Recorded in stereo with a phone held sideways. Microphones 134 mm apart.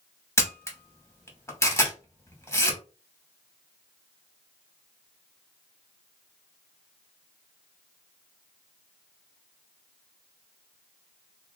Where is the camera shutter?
20° left (ahead or behind), 1.0 m.